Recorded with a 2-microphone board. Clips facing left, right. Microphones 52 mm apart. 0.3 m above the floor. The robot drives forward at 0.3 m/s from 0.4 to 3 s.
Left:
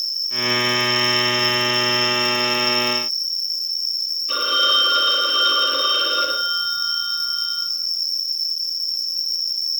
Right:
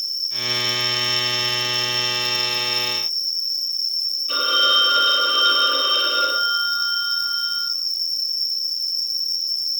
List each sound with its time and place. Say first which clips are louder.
0.0 s an insect: left 5 dB; 40° right (ahead or behind), 3 m; by 9.8 s 30° right (ahead or behind), 4 m
4.3 s a phone ringing: even; 15° left (ahead or behind), 3.5 m